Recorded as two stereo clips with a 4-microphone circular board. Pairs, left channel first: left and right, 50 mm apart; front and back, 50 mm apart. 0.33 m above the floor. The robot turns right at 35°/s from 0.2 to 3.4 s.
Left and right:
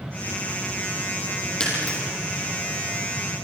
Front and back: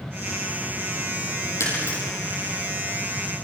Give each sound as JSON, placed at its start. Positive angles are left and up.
{"t": 1.6, "sound": "breaking glass", "azimuth_deg": 20, "distance_m": 8.0}